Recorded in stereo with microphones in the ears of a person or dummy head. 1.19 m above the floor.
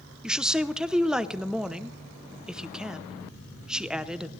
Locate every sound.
0.2 s a woman speaking: 5° right (ahead or behind), 0.7 m